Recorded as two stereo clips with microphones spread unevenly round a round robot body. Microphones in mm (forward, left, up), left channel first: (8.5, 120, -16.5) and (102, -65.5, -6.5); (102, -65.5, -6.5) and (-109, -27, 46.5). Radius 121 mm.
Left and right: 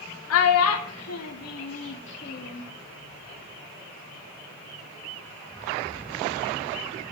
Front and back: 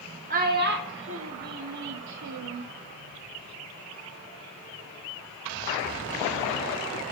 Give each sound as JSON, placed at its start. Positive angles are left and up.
{"t": 0.3, "sound": "a child speaking", "azimuth_deg": 110, "distance_m": 1.1}